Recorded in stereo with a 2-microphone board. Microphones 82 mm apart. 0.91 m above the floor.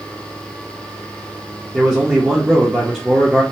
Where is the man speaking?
10° right (ahead or behind), 0.6 m.